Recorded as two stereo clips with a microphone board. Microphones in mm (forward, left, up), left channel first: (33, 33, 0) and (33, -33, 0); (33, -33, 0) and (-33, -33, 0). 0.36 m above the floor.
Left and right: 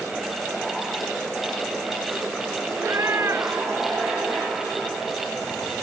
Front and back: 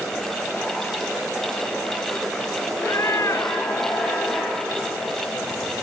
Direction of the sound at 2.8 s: 45° right.